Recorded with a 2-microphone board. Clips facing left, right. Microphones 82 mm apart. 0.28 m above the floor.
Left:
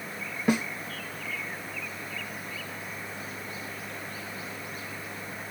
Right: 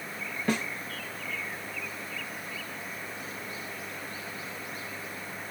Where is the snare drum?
15° left (ahead or behind), 0.8 m.